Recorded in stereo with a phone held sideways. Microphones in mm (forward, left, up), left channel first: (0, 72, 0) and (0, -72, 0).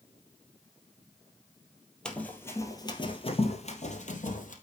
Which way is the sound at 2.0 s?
5° left (ahead or behind).